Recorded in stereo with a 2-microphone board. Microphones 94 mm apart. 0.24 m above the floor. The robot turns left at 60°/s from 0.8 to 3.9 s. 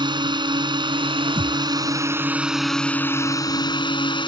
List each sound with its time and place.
0.0 s a drone: 70° right; by 4.3 s 105° left
1.4 s a thud: 55° right (ahead or behind); by 1.6 s 70° right (ahead or behind)